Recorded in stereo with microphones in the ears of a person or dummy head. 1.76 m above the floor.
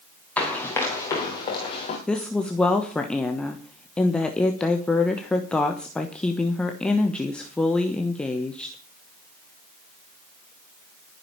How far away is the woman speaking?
About 1.1 m.